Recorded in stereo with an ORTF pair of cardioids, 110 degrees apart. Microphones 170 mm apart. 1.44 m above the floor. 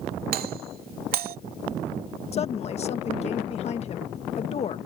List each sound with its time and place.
0.3 s a doorbell: 60° right
2.3 s a woman speaking: 40° left